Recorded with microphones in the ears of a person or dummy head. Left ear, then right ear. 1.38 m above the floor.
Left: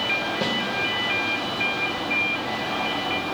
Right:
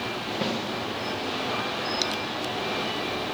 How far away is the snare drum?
About 1.1 m.